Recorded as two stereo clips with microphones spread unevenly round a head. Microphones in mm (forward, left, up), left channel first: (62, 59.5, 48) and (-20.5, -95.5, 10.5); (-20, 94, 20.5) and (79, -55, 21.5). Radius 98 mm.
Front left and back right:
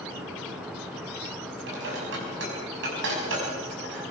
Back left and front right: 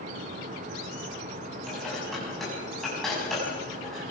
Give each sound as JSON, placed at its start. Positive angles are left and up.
{"t": 1.7, "sound": "dishes clattering", "azimuth_deg": -150, "distance_m": 6.0}